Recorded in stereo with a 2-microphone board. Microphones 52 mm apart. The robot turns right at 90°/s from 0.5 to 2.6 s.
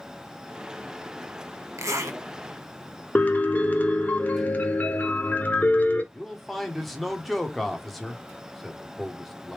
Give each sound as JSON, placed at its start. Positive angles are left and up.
{"t": 1.8, "sound": "a zipper", "azimuth_deg": -110, "distance_m": 1.1}
{"t": 3.1, "sound": "a piano", "side_deg": 30, "distance_m": 0.8}
{"t": 6.1, "sound": "a man speaking", "side_deg": 0, "distance_m": 0.9}